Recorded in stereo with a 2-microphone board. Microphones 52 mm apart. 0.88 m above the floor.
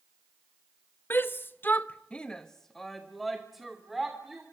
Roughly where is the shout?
Left.